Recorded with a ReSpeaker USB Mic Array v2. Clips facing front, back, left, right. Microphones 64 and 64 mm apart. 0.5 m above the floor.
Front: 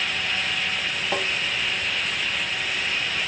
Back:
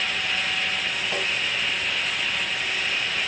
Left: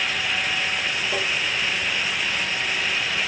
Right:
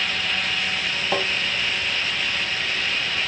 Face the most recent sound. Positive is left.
turn(degrees=-60)